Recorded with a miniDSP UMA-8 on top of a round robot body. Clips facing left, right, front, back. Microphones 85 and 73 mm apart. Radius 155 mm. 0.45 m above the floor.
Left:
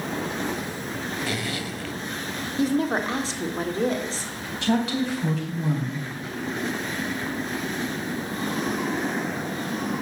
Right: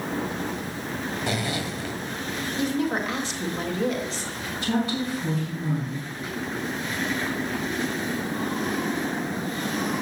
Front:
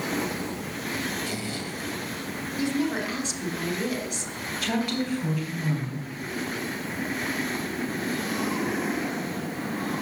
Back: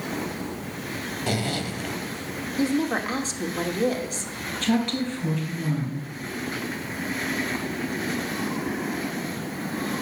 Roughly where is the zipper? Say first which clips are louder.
Right 2 dB, back 5 dB; behind.